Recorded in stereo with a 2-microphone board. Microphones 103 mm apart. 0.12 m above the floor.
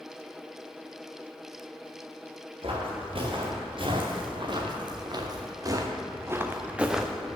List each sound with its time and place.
2.6 s footsteps: 60° right (ahead or behind), 3 m; by 7.4 s 5° left (ahead or behind), 1.0 m